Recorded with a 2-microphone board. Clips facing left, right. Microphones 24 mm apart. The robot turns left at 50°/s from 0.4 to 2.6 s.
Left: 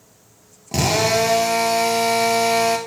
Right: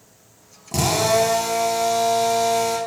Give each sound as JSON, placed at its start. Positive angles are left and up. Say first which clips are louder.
{"t": 0.7, "sound": "a drill", "louder": "left 1 dB", "azimuth_deg": 160, "distance_m": 1.3}